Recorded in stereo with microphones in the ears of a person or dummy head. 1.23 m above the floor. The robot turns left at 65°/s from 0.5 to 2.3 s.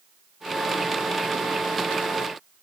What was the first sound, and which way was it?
Only background noise.